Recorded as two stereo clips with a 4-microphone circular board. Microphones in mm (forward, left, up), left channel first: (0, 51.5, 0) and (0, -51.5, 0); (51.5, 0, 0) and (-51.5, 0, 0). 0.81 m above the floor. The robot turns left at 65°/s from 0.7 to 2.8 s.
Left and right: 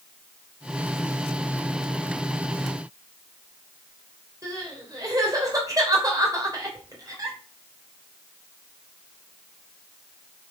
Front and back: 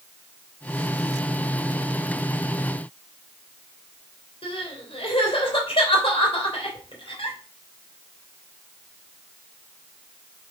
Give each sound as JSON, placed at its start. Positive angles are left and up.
{"t": 4.4, "sound": "crying", "azimuth_deg": -35, "distance_m": 3.0}